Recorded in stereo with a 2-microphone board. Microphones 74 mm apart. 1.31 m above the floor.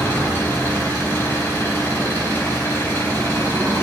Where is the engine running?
35° left (ahead or behind), 4.5 m.